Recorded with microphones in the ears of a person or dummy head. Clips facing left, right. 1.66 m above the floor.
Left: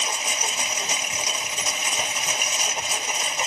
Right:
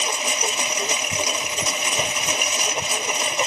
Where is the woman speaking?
No woman speaking in this recording.